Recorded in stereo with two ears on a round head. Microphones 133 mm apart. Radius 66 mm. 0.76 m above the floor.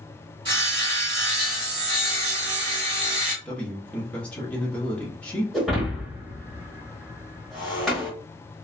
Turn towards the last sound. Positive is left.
turn(degrees=0)  # may be behind; listen again after turning